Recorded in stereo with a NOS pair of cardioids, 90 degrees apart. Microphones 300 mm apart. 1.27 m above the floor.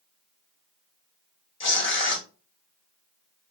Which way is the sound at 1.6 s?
40° left.